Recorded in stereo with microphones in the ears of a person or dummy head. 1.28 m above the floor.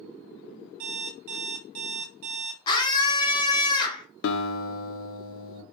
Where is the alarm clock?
50° right (ahead or behind), 0.5 m.